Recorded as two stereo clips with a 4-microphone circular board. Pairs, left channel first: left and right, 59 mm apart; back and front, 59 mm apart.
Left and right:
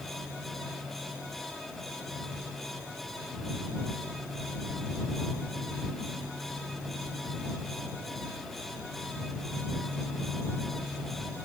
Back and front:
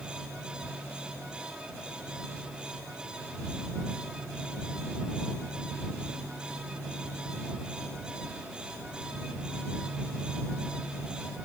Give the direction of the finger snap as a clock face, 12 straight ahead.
No finger snap in this recording.